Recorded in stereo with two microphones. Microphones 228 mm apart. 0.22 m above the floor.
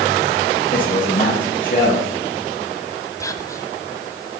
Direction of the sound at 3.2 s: 15° left (ahead or behind).